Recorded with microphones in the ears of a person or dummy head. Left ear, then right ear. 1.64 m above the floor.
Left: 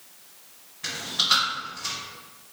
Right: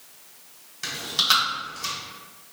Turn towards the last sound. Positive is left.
turn(degrees=-65)  # may be behind; listen again after turning